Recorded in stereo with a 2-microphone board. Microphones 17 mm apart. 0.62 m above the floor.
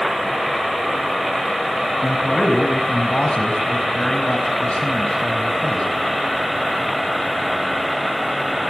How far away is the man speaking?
About 4 m.